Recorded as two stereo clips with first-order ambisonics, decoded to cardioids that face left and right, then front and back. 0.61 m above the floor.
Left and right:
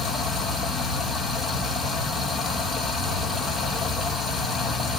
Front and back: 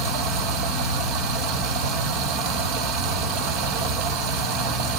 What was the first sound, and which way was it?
Running water, 175° right.